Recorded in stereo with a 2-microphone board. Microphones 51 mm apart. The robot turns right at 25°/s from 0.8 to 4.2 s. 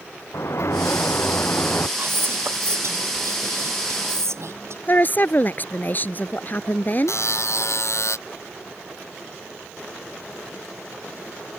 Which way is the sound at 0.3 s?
65° left (ahead or behind).